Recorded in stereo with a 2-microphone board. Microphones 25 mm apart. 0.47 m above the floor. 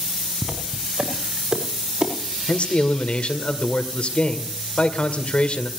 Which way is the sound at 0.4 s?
35° right (ahead or behind).